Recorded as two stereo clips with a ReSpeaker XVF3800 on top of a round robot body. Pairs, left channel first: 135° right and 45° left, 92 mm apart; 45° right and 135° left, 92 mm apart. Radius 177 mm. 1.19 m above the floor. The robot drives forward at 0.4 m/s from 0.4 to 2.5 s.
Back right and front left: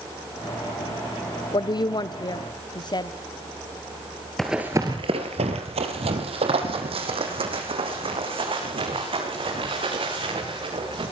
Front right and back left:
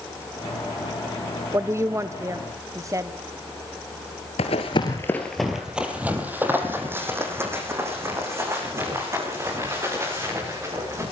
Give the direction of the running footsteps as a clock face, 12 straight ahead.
2 o'clock.